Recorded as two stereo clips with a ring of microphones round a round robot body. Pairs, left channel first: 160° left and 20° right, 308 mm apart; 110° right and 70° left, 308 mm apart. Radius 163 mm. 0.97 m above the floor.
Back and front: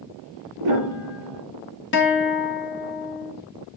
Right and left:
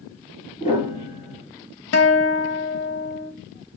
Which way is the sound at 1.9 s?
155° right.